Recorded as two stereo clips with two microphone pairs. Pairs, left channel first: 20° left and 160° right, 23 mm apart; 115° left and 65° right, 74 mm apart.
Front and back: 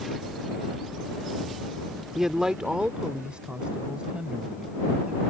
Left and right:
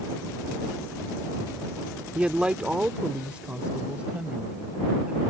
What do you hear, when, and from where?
2.1 s a man speaking: 110° right; by 5.3 s 135° right